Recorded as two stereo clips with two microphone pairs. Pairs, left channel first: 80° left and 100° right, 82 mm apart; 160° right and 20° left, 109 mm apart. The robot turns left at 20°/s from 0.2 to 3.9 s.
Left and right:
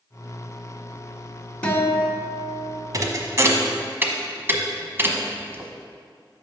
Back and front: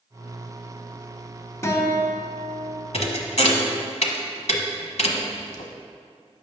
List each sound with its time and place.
1.6 s a guitar: 155° left, 1.4 m; by 2.8 s 130° left, 1.4 m
2.9 s a thud: 140° right, 0.9 m; by 5.7 s 160° right, 0.9 m